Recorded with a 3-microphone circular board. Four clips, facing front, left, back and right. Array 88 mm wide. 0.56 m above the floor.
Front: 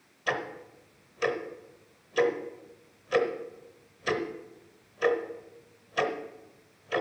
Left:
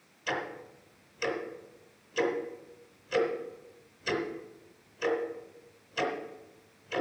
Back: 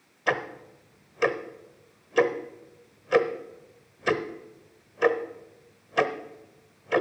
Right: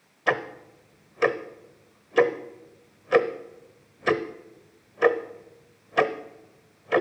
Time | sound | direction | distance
0.3 | ticking | 115° right | 0.8 m